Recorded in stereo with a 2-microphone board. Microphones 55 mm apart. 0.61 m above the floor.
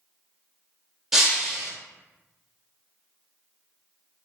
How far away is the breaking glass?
About 0.7 m.